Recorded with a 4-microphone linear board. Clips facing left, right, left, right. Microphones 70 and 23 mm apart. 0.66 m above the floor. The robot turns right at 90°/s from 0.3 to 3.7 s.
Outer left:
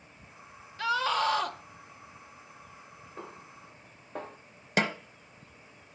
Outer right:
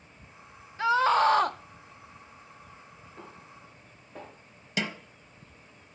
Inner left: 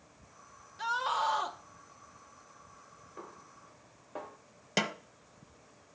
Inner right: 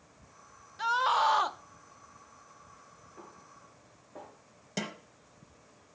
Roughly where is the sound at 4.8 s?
Left.